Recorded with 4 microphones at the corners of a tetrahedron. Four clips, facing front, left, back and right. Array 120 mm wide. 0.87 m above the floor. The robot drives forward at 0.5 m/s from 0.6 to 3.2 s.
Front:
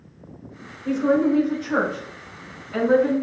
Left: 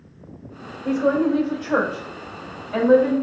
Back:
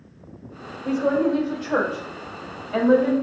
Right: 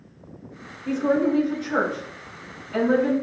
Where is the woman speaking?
115° left, 1.6 m; by 3.1 s 145° left, 2.5 m.